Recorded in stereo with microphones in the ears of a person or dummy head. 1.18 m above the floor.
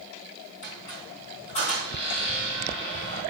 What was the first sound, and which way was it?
A squeak, 30° left (ahead or behind).